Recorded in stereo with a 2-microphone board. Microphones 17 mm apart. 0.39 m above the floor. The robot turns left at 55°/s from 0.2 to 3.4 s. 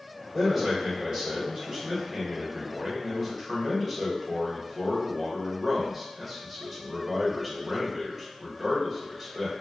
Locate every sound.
0.3 s a man speaking: 10° right, 1.3 m; by 9.5 s straight behind, 1.3 m